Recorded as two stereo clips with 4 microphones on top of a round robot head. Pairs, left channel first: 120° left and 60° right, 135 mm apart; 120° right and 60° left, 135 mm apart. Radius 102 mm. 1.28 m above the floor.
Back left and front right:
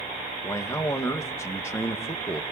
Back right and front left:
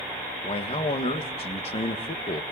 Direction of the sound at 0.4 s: 170° right.